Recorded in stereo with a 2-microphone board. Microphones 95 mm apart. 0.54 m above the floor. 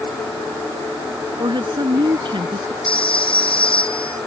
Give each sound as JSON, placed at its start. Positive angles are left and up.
{"t": 1.4, "sound": "a woman speaking", "side_deg": -55}
{"t": 2.8, "sound": "a phone ringing", "side_deg": 75}